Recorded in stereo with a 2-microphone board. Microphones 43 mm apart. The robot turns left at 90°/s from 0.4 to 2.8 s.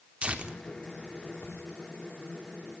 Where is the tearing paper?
30° right (ahead or behind), 3 m; by 1.6 s 75° left (ahead or behind), 3 m.